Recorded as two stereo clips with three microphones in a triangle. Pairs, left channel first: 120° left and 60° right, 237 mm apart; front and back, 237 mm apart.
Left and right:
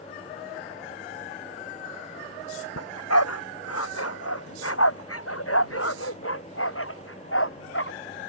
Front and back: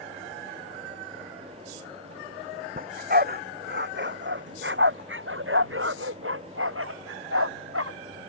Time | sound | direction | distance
2.8 | a dog barking | 125° left | ?